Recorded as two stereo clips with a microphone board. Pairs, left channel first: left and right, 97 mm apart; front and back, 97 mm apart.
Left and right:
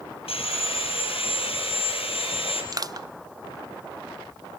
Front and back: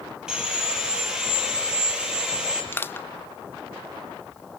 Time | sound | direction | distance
0.3 | sawing | 95° left | 5 m
2.7 | crushing | 60° right | 0.6 m